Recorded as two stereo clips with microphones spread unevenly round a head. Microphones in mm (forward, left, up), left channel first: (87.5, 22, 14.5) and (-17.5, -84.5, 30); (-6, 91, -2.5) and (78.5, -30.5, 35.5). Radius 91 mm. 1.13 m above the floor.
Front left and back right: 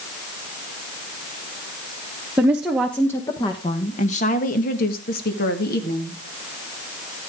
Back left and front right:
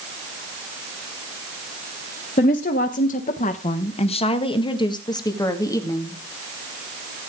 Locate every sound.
2.4 s a woman speaking: 145° left, 1.3 m; by 6.2 s 55° left, 2.5 m